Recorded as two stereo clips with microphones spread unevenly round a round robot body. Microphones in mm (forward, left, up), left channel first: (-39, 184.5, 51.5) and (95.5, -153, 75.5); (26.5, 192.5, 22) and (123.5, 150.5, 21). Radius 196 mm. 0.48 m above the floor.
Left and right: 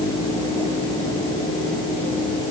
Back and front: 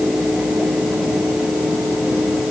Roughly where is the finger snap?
No finger snap in this recording.